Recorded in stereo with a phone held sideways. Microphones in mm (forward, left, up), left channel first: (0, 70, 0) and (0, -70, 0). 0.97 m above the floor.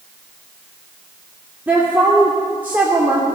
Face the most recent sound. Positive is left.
turn(degrees=-10)  # may be behind; listen again after turning